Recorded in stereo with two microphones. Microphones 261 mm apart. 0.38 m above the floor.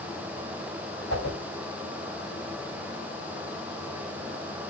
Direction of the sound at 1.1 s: 50° left (ahead or behind).